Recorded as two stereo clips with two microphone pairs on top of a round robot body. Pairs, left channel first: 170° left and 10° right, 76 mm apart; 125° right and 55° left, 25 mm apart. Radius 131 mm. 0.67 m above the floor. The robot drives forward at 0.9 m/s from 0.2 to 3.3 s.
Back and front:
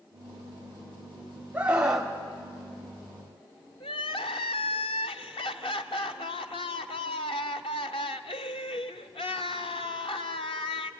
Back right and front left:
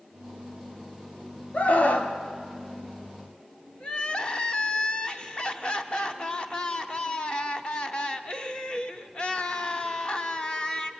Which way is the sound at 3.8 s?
Straight behind.